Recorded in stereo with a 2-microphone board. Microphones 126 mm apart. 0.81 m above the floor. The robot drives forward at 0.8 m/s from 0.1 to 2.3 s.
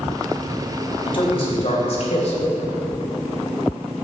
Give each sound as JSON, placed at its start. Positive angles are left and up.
{"t": 1.1, "sound": "a man speaking", "side_deg": 45, "distance_m": 3.5}